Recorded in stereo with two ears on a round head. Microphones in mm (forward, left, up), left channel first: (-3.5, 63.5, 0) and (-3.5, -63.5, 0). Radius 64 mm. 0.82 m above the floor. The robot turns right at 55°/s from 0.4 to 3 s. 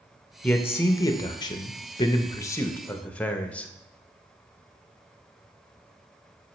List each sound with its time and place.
0.4 s a man speaking: 10° left (ahead or behind), 0.6 m